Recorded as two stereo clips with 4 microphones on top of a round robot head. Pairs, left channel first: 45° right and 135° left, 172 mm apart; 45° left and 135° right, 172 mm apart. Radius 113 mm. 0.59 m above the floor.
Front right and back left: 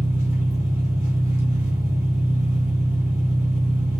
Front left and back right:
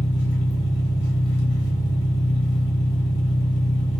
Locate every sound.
0.0 s an engine running: 65° left, 1.1 m